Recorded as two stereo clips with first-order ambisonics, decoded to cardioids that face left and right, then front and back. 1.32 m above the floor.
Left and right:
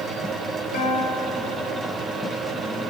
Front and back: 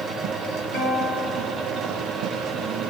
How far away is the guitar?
About 5 m.